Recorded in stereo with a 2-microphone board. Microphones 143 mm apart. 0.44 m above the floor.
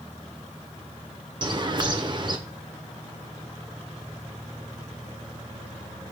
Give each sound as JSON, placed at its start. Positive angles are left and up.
{"t": 1.4, "sound": "a bird", "side_deg": -35, "distance_m": 1.4}